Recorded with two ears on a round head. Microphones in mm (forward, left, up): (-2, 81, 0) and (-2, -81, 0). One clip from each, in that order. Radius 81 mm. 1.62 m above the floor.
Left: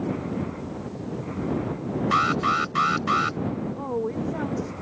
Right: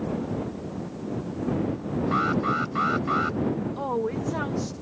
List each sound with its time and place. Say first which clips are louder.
2.1 s an alarm: left 4 dB; 65° left (ahead or behind)
3.8 s a woman speaking: left 1 dB; 90° right